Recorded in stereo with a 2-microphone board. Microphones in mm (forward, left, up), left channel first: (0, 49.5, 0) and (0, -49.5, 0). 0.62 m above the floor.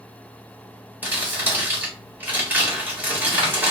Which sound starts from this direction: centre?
Crumpling, at 1.0 s.